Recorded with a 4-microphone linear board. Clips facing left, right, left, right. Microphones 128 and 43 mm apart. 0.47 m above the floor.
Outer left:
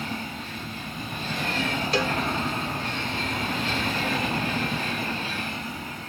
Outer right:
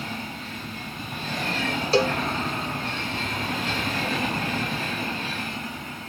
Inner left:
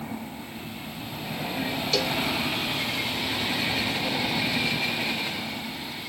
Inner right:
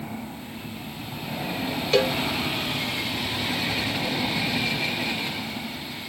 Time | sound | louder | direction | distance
1.9 | a cowbell | outer right 6 dB, inner right 6 dB | 30° right (ahead or behind) | ?